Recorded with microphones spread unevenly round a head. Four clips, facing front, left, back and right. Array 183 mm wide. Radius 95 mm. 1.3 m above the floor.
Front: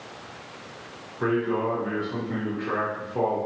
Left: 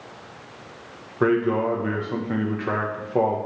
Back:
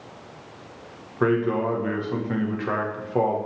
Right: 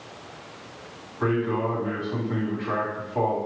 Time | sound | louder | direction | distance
1.2 | a man speaking | left 4 dB, back 3 dB | 110° left | 1.0 m